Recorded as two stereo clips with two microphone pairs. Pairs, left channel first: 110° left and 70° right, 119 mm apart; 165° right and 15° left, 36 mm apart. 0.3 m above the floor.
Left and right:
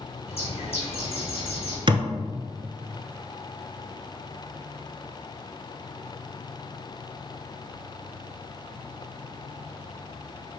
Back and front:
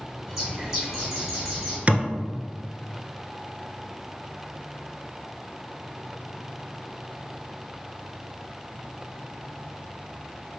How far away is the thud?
About 0.8 m.